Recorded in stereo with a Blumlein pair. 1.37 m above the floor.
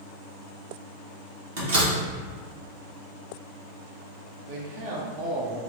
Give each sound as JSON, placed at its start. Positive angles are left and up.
{"t": 1.6, "sound": "a door slam", "azimuth_deg": -60, "distance_m": 1.5}
{"t": 4.5, "sound": "a man speaking", "azimuth_deg": -50, "distance_m": 0.9}